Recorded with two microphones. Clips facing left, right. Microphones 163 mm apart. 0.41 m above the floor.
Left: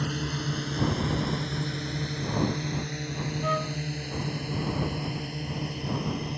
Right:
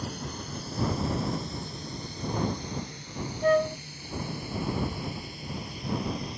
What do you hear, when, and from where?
0.0 s a drone: 75° left (ahead or behind); by 6.4 s 60° left (ahead or behind)
3.4 s a flute: 50° right (ahead or behind)